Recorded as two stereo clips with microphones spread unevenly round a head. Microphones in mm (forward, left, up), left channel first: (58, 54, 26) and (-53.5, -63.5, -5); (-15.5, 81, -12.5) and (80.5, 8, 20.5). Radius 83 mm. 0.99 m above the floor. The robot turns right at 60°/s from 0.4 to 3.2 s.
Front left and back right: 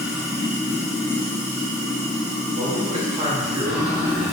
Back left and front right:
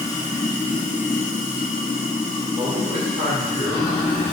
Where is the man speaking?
125° right, 0.9 m; by 4.3 s 90° right, 0.9 m.